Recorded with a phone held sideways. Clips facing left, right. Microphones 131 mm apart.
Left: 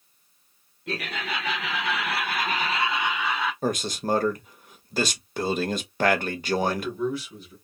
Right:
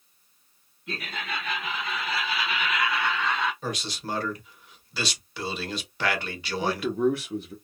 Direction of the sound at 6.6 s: 55° right (ahead or behind).